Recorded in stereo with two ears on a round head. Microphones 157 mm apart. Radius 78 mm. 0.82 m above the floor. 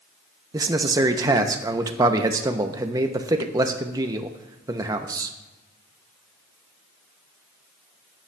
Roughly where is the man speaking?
Centre.